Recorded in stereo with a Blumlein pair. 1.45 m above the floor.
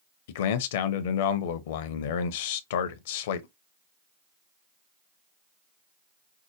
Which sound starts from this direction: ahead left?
A man speaking, at 0.3 s.